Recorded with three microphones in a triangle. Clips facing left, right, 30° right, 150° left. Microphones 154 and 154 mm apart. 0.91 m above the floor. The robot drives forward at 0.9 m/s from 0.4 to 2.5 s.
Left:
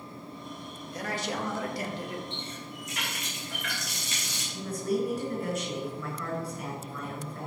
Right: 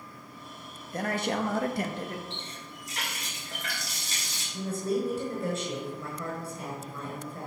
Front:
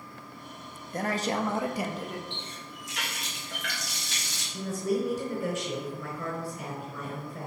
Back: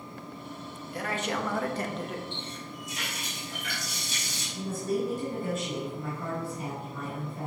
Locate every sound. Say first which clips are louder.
0.9 s a man speaking: right 4 dB, front 3 dB; 65° right, 1.3 m; by 2.2 s 125° right, 1.3 m
2.3 s a running tap: left 3 dB, back 3 dB; 30° right, 3 m; by 4.4 s 35° right, 2.5 m
4.5 s a woman speaking: even, front 1 dB; 25° right, 4 m